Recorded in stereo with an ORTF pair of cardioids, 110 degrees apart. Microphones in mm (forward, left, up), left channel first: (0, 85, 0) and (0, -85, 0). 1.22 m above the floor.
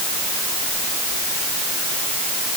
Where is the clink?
No clink in this recording.